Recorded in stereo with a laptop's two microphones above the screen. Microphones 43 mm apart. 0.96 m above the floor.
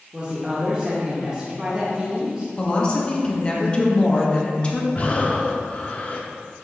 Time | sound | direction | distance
0.1 | a woman speaking | 20° right (ahead or behind) | 0.8 m
2.6 | a woman speaking | 25° left (ahead or behind) | 1.5 m
5.0 | breathing | 35° left (ahead or behind) | 0.6 m